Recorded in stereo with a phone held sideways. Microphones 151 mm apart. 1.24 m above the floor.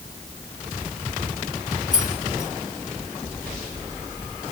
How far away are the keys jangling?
About 4 m.